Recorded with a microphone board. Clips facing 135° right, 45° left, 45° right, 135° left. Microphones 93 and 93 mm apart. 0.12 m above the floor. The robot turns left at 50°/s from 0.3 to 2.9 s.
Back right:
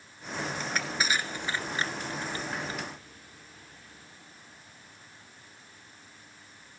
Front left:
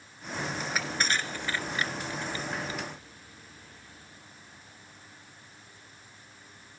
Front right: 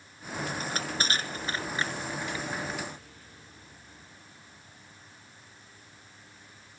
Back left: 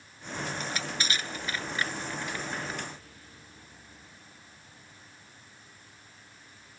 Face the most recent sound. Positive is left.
turn(degrees=-150)